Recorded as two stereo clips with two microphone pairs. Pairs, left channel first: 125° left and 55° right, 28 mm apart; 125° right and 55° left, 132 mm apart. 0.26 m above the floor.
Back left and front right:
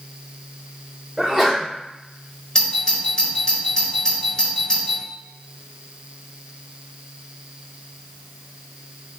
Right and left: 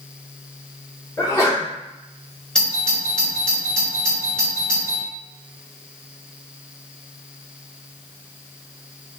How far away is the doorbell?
About 1.6 m.